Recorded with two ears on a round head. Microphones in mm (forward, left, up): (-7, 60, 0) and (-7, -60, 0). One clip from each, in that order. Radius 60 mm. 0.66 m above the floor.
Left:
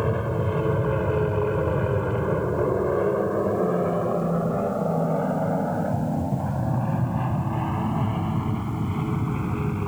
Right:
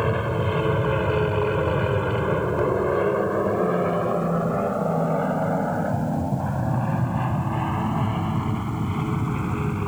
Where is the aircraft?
55° right (ahead or behind); by 9.9 s 15° right (ahead or behind).